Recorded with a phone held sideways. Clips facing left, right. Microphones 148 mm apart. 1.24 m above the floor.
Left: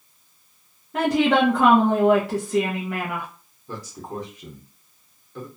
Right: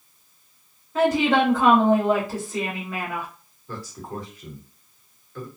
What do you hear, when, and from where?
0.9 s a woman speaking: 80° left, 0.8 m
3.7 s a man speaking: 15° left (ahead or behind), 0.9 m